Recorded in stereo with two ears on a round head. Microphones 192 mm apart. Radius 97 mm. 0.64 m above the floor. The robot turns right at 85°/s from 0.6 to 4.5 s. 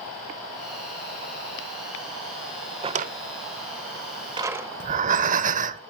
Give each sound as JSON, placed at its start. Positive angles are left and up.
{"t": 2.8, "sound": "a drawer", "side_deg": -25, "distance_m": 0.6}
{"t": 4.8, "sound": "breathing", "side_deg": -40, "distance_m": 0.8}